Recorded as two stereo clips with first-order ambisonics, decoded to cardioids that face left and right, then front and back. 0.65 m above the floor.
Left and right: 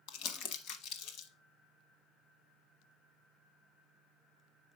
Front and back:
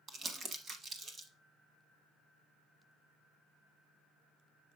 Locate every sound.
0.1 s crumpling: 115° left, 0.8 m